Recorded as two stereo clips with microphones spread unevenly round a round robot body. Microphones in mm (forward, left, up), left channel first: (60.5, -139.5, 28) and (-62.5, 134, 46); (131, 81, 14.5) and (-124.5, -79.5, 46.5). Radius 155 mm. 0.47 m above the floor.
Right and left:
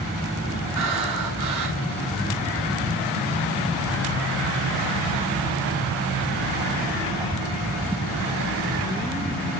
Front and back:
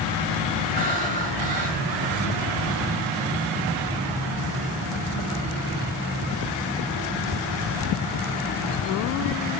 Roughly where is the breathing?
Behind left.